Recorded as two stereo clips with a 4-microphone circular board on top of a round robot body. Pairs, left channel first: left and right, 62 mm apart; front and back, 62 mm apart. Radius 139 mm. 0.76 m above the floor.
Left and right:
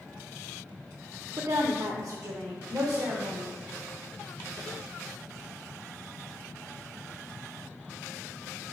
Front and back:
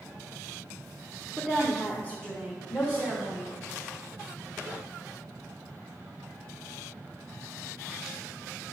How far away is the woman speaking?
About 0.6 m.